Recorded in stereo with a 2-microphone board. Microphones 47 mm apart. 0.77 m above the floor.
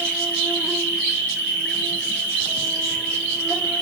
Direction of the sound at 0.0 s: 60° left (ahead or behind).